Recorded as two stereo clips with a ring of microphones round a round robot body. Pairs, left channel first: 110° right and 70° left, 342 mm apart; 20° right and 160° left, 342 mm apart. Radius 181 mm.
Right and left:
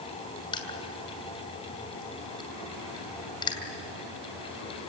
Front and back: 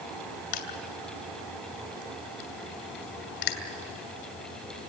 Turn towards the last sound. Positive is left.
turn(degrees=-35)